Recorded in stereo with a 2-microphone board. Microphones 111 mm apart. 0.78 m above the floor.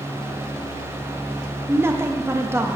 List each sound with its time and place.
1.7 s a woman speaking: 20° right (ahead or behind), 0.5 m